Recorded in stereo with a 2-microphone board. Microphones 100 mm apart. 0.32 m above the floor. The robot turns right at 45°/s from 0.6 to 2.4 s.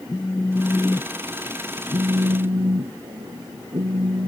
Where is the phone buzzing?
160° left; by 4.3 s 120° right.